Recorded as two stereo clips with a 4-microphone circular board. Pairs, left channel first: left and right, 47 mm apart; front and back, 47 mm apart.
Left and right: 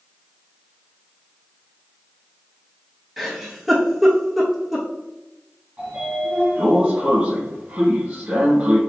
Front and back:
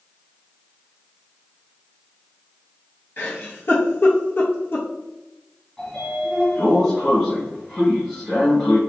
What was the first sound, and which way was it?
A giggle, 5° right.